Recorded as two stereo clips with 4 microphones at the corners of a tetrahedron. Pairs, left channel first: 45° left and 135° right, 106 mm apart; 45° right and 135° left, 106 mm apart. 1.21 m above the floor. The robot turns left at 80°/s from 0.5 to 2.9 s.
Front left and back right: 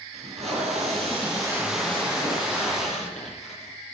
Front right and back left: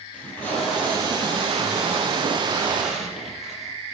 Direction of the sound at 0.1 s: 120° right.